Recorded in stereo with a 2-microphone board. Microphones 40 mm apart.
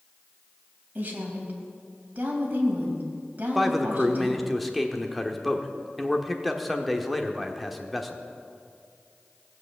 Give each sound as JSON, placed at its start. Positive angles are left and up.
{"t": 0.9, "sound": "a woman speaking", "side_deg": -40, "distance_m": 3.5}
{"t": 3.5, "sound": "a man speaking", "side_deg": 0, "distance_m": 1.0}